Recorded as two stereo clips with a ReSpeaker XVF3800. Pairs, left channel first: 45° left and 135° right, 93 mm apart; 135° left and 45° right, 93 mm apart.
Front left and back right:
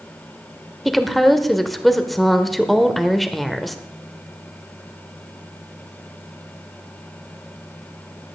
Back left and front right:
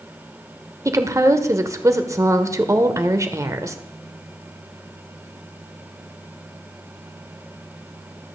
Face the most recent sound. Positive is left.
turn(degrees=-45)